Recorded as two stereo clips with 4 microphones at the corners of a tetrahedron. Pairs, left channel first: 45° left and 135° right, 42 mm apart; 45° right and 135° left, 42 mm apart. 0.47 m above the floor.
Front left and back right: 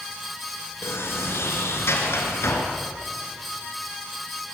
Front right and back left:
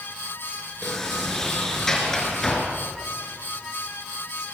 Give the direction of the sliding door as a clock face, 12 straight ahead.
11 o'clock.